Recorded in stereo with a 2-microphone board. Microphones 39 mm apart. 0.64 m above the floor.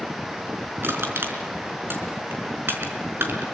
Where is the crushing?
65° right (ahead or behind), 5 m.